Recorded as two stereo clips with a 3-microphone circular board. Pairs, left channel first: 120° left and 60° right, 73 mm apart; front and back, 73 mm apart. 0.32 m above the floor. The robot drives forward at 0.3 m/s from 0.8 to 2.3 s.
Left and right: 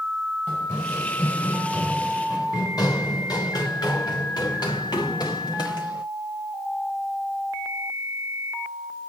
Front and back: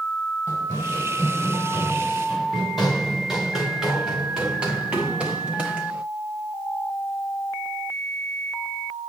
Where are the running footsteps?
55° left, 2.5 m; by 6.0 s 105° left, 4.5 m.